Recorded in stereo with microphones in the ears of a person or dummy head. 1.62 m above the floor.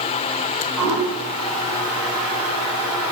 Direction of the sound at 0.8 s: 5° right (ahead or behind).